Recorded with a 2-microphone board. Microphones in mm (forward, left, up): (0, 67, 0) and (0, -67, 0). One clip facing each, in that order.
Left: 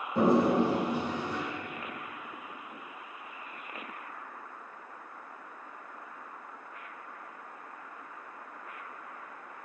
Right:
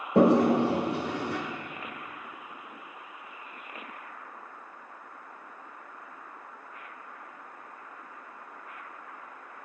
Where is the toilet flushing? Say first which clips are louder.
Right 4 dB; 70° right (ahead or behind), 0.5 m.